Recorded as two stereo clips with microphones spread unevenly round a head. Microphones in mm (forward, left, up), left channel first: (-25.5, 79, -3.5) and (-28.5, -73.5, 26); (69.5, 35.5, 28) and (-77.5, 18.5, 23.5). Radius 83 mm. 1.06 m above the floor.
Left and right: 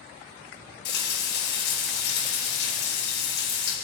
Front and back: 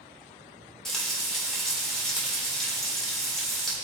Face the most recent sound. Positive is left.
turn(degrees=95)